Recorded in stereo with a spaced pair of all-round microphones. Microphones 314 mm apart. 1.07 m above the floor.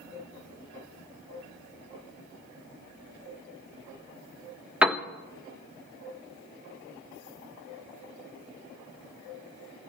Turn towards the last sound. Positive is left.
turn(degrees=-5)  # may be behind; listen again after turning